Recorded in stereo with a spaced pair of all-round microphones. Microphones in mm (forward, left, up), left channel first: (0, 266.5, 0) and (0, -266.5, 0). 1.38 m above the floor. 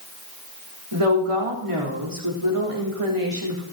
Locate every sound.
0.9 s a woman speaking: 75° right (ahead or behind), 3.5 m